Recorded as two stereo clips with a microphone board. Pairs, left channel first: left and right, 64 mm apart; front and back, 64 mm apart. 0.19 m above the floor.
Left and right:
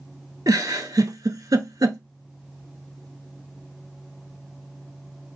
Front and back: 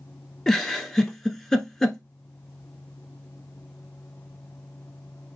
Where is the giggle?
80° right, 0.6 m.